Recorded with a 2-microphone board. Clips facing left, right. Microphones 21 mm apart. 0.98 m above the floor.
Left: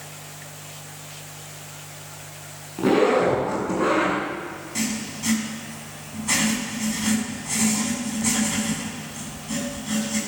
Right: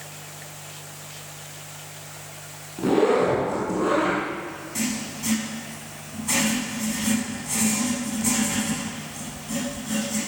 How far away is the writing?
About 9 m.